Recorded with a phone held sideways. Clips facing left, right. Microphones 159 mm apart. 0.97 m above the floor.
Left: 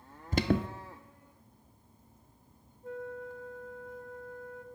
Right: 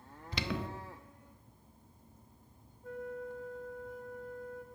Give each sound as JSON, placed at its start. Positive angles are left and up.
{"t": 0.3, "sound": "an alarm", "side_deg": 45, "distance_m": 0.5}
{"t": 2.8, "sound": "a flute", "side_deg": 25, "distance_m": 0.9}